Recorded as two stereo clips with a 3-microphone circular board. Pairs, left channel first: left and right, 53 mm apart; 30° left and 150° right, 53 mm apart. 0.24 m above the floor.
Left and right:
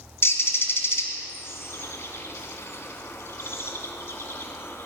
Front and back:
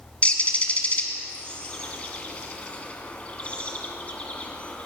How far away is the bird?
About 1.8 m.